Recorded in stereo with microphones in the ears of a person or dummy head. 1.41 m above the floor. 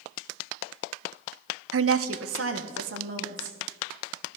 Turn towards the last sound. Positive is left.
turn(degrees=-65)  # may be behind; listen again after turning